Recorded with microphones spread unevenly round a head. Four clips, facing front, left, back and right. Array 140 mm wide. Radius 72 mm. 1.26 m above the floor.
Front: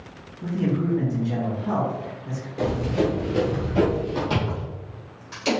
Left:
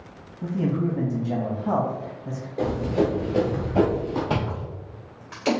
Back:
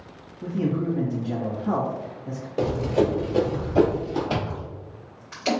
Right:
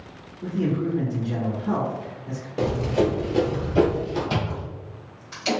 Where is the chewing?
75° left, 1.8 m.